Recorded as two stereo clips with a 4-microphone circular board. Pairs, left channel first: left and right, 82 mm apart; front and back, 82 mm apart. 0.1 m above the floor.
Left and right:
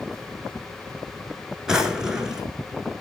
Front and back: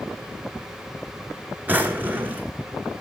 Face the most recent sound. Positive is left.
turn(degrees=-160)